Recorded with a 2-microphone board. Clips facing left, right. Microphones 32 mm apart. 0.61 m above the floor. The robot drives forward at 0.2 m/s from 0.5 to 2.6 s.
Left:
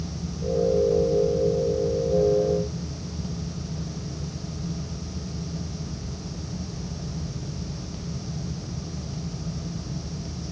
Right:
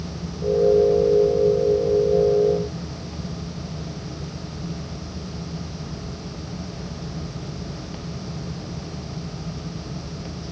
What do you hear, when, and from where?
Only background noise.